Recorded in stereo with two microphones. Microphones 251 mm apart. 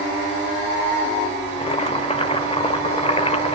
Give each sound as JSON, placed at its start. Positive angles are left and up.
{"t": 1.5, "sound": "boiling", "side_deg": 25, "distance_m": 2.0}